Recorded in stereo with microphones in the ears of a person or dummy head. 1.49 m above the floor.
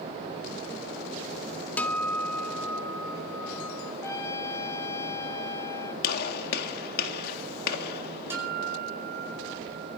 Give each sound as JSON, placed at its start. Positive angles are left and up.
{"t": 1.8, "sound": "a guitar", "side_deg": 10, "distance_m": 1.5}
{"t": 4.0, "sound": "a trumpet", "side_deg": 15, "distance_m": 2.5}
{"t": 6.0, "sound": "a gunshot", "side_deg": 55, "distance_m": 1.7}
{"t": 8.3, "sound": "a guitar", "side_deg": -15, "distance_m": 8.5}